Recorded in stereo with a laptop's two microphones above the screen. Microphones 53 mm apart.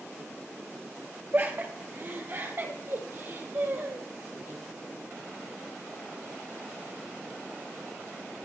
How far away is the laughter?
About 1.5 m.